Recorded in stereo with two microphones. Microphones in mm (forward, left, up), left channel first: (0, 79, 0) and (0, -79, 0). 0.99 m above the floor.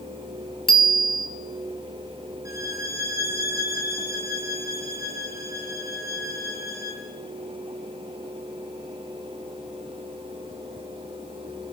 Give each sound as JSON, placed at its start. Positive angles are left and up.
{"t": 0.7, "sound": "a bicycle bell", "side_deg": 70, "distance_m": 2.5}
{"t": 2.5, "sound": "a violin", "side_deg": 90, "distance_m": 8.0}